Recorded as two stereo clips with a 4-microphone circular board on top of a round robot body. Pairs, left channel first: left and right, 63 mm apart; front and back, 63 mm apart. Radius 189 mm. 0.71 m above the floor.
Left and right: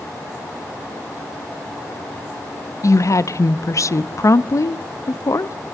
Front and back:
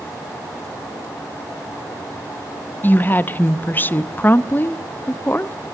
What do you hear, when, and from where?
2.8 s a woman speaking: 60° left, 1.0 m